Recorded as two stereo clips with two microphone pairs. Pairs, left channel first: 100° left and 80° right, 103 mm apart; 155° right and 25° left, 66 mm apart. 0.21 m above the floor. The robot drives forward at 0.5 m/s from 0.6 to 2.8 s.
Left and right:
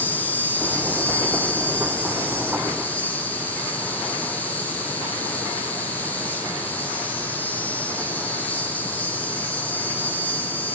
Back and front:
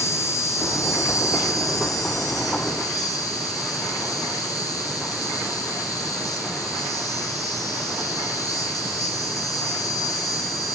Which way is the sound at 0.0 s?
175° left.